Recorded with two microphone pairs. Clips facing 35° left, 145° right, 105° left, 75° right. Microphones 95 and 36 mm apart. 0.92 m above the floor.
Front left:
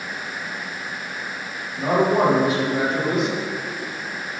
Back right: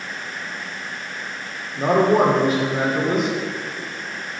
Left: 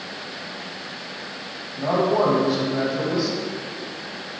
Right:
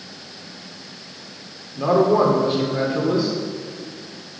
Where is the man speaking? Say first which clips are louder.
Back right 2 dB, right 4 dB; 105° right, 2 m.